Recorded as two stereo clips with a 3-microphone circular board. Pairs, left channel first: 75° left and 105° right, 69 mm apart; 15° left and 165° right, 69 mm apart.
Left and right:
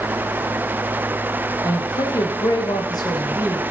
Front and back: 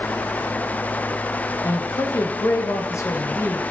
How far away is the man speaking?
About 2 m.